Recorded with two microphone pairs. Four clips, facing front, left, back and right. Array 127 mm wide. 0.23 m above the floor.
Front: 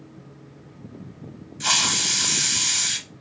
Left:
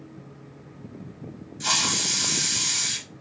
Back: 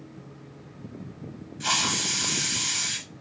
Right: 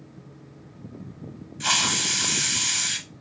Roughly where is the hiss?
Ahead right.